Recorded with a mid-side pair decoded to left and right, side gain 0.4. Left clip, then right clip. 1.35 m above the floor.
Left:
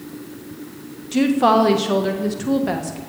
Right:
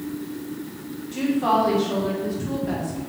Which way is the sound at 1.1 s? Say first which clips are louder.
Left 5 dB; 70° left.